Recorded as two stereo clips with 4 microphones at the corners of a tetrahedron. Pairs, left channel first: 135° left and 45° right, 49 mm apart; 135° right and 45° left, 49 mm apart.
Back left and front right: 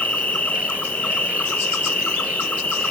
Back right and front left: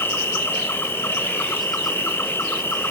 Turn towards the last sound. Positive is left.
turn(degrees=-165)